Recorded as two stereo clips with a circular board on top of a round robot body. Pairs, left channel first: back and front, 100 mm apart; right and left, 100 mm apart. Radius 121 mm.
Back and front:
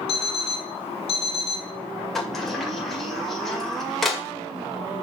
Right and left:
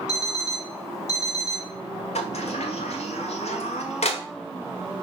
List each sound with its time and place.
0.1 s an alarm clock: 155° right, 2.5 m
2.1 s a sliding door: 90° right, 2 m